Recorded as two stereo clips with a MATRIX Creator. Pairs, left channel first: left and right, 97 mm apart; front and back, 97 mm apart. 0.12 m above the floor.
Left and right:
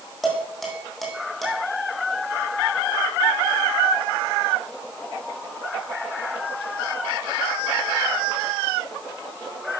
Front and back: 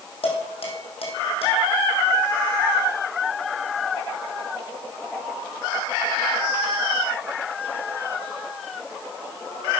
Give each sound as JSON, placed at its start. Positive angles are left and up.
{"t": 0.2, "sound": "dishes clattering", "azimuth_deg": 0, "distance_m": 4.5}